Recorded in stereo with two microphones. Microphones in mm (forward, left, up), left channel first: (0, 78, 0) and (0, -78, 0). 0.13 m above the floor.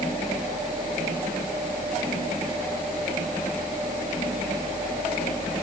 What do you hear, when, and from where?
Only background noise.